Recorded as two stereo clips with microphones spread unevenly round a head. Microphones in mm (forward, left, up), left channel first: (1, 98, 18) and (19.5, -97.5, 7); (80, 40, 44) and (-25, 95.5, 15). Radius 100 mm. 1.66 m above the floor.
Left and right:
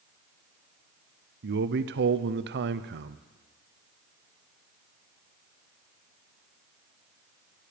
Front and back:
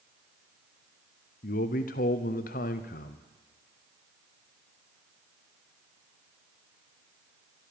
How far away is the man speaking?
About 0.8 m.